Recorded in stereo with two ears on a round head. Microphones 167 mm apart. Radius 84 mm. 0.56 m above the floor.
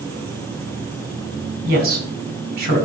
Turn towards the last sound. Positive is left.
turn(degrees=-55)  # may be behind; listen again after turning